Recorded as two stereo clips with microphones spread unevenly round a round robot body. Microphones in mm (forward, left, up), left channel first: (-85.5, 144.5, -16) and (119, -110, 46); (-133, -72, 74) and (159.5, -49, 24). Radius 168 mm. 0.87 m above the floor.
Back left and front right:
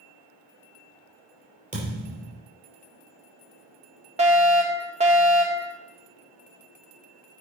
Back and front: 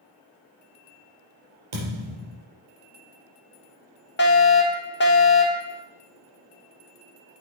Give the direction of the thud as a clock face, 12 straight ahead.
12 o'clock.